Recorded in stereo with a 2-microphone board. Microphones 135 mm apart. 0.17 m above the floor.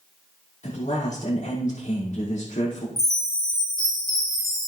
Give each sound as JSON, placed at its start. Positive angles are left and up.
{"t": 0.6, "sound": "a man speaking", "side_deg": 65, "distance_m": 6.0}
{"t": 3.0, "sound": "a chime", "side_deg": 5, "distance_m": 3.5}